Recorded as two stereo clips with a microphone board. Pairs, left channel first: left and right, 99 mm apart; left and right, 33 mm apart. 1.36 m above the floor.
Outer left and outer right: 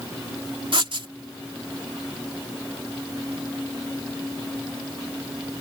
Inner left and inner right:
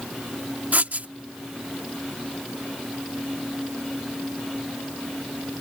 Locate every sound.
0.7 s writing: 55° right (ahead or behind)